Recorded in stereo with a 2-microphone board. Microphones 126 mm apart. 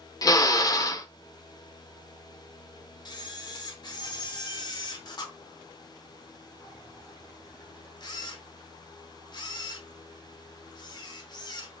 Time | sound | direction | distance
0.2 | a drill | 30° left (ahead or behind) | 0.6 m
3.0 | a camera shutter | 35° left (ahead or behind) | 0.9 m